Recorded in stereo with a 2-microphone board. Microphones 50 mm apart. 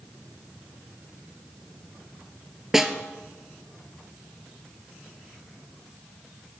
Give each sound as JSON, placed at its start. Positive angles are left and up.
{"t": 2.7, "sound": "a snare drum", "side_deg": -10, "distance_m": 0.6}